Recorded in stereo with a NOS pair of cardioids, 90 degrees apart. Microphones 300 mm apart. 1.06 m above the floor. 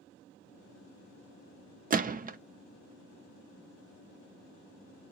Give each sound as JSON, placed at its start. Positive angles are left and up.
{"t": 1.9, "sound": "a gunshot", "azimuth_deg": -30, "distance_m": 0.6}